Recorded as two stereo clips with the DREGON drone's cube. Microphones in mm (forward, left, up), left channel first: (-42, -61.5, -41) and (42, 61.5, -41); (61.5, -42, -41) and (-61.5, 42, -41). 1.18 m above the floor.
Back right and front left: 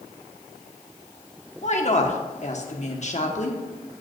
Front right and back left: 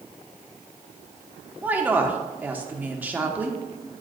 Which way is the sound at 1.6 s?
140° right.